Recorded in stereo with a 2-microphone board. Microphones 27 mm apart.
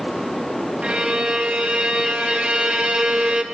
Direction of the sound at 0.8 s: 40° right (ahead or behind).